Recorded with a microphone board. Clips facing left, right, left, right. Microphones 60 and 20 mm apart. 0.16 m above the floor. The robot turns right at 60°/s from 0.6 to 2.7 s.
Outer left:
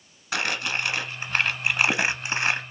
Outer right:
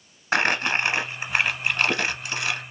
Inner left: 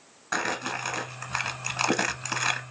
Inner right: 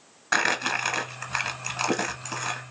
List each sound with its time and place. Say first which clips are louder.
0.3 s crumpling: outer right 5 dB, inner right 5 dB; 55° right, 0.7 m; by 2.6 s 65° left, 0.7 m